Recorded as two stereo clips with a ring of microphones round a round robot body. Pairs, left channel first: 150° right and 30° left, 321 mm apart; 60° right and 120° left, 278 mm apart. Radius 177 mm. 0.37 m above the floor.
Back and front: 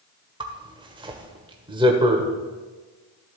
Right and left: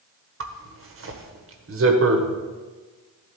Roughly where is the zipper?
Left.